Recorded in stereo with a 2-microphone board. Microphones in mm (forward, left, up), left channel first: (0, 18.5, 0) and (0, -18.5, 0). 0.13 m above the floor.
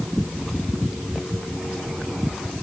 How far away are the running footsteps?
I don't hear running footsteps.